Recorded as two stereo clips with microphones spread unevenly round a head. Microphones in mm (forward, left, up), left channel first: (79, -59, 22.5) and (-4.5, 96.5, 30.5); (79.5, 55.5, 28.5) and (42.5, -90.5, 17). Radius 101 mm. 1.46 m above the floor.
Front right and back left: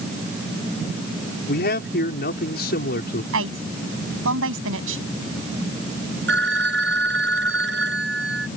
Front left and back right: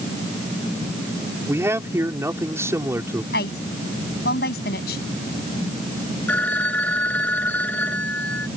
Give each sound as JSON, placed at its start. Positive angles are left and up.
{"t": 1.5, "sound": "a man speaking", "azimuth_deg": -30}
{"t": 3.3, "sound": "a woman speaking", "azimuth_deg": 120}
{"t": 6.3, "sound": "a phone ringing", "azimuth_deg": 160}